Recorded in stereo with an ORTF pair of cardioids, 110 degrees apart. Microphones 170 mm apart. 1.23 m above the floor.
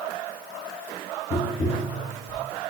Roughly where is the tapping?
Ahead.